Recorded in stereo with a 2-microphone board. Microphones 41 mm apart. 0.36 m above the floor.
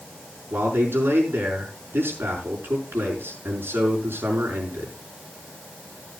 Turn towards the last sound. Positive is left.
turn(degrees=-75)  # may be behind; listen again after turning